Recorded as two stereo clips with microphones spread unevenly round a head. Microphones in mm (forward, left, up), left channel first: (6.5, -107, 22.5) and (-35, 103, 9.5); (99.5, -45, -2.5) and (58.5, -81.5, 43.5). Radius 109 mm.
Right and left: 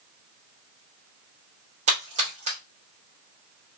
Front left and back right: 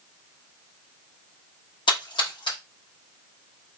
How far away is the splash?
About 1.5 m.